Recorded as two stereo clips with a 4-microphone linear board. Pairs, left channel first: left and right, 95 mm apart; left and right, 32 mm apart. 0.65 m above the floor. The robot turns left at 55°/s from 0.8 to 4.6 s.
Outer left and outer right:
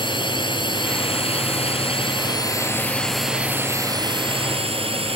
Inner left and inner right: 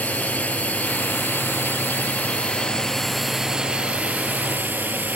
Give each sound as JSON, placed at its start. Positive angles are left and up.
{"t": 0.0, "sound": "a drone", "side_deg": 55}